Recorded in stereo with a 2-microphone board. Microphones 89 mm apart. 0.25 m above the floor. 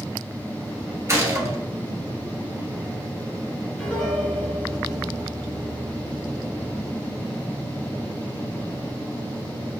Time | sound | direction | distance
1.1 | a gunshot | 35° right (ahead or behind) | 1.1 m
3.8 | a piano | 10° left (ahead or behind) | 1.7 m